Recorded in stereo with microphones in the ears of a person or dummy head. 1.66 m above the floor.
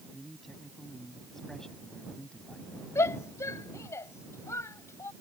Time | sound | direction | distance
0.1 | a man speaking | 5° right (ahead or behind) | ?
3.0 | a shout | 20° left (ahead or behind) | ?